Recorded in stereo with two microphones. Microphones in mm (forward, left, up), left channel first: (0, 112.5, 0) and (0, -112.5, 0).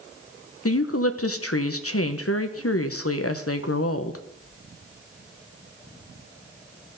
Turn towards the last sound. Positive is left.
turn(degrees=80)